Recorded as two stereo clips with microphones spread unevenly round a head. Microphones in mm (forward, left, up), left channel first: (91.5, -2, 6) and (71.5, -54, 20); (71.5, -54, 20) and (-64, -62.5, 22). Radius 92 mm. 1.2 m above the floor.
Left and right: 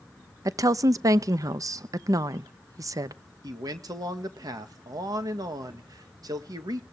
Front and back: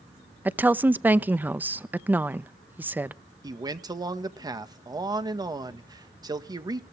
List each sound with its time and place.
0.5 s a woman speaking: 100° right, 0.8 m
3.4 s a man speaking: 115° right, 1.7 m